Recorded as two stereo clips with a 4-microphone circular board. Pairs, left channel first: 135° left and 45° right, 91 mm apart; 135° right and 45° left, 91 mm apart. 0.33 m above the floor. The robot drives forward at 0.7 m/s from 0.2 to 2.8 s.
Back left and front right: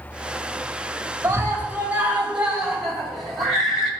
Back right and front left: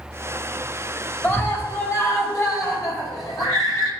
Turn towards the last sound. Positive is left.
turn(degrees=-130)